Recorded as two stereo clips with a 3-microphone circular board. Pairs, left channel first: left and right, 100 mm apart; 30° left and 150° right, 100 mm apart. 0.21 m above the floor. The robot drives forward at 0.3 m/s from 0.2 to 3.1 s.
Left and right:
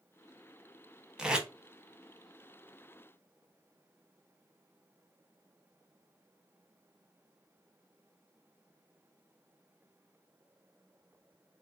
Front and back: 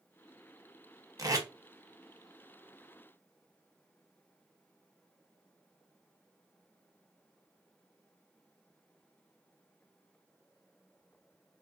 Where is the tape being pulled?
170° right, 0.8 m.